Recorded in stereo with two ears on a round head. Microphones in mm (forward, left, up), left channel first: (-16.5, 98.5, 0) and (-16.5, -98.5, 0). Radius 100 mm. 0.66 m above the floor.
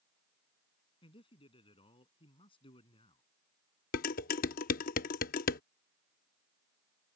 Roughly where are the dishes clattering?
Left.